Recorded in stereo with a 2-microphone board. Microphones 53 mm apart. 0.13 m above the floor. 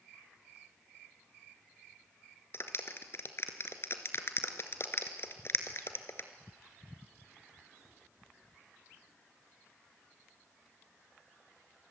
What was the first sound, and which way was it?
A clap, 50° left (ahead or behind).